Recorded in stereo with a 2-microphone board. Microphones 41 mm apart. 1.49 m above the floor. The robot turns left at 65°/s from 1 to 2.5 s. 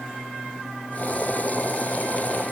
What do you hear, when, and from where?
Only background noise.